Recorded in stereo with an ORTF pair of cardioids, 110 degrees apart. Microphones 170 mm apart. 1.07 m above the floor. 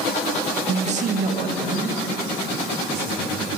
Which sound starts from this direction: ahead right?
A man speaking, at 0.7 s.